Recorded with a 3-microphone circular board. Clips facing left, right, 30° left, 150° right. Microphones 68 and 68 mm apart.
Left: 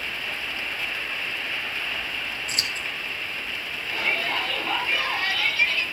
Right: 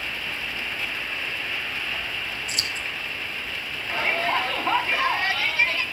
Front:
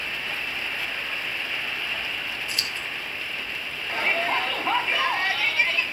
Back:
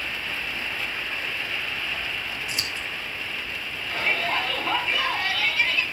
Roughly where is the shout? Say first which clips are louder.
Right 3 dB, front 1 dB; ahead right.